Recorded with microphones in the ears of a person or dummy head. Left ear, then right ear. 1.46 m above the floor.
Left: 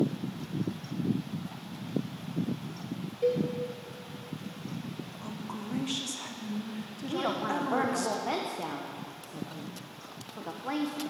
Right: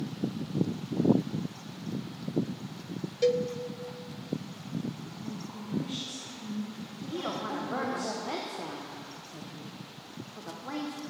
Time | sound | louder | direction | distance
3.2 | a cowbell | right 2 dB | 55° right (ahead or behind) | 0.6 m
5.2 | a woman speaking | left 2 dB | 50° left (ahead or behind) | 1.1 m
7.1 | a woman speaking | left 4 dB | 15° left (ahead or behind) | 0.8 m